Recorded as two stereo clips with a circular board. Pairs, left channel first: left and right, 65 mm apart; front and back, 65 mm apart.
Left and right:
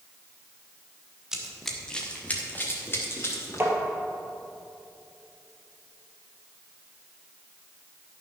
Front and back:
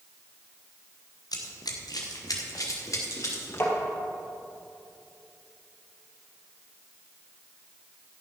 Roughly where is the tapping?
Ahead right.